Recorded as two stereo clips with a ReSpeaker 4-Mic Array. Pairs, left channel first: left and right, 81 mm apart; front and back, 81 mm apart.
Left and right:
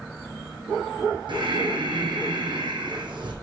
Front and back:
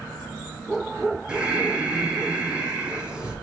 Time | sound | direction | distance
1.3 | breathing | 100° right | 1.0 m